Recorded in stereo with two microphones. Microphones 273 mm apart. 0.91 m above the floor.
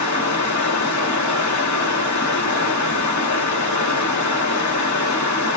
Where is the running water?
80° left, 1.0 m.